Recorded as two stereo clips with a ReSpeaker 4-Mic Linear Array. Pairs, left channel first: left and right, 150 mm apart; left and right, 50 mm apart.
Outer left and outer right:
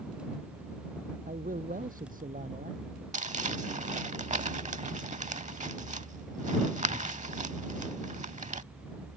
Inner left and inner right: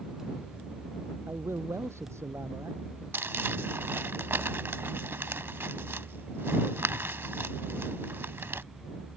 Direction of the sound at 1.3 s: 65° right (ahead or behind).